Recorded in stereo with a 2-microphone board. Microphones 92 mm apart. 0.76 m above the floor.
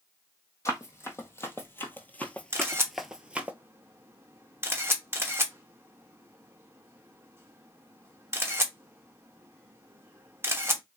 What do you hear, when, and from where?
0.7 s running footsteps: 35° left (ahead or behind), 1.4 m; by 3.5 s 15° right (ahead or behind), 0.8 m
2.5 s a camera shutter: 25° right (ahead or behind), 0.9 m